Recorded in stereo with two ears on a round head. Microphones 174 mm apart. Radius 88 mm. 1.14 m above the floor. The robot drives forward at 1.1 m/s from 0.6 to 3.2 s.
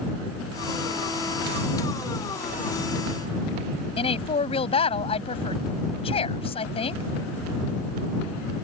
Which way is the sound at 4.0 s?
30° left (ahead or behind).